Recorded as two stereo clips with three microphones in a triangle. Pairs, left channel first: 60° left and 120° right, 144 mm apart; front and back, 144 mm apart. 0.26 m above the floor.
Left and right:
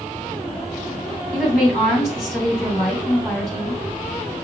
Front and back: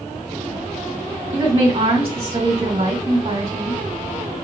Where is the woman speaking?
145° left, 1.8 m.